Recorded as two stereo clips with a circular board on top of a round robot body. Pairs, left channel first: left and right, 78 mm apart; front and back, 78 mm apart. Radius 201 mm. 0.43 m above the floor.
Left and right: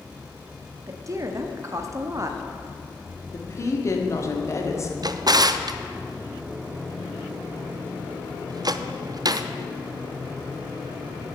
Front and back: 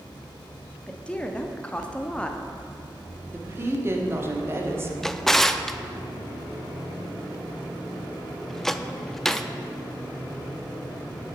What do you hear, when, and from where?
0.9 s a woman speaking: 70° right, 1.2 m
3.3 s a woman speaking: 130° left, 1.8 m
5.0 s a drawer: 85° right, 0.6 m